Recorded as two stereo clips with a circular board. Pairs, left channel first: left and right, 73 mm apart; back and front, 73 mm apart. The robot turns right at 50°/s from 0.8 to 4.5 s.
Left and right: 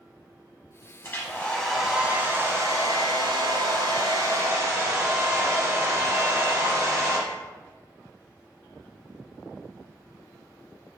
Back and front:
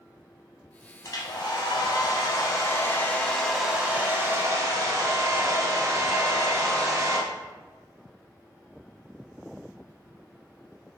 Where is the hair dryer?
145° left, 0.6 m; by 7.2 s 45° right, 0.6 m.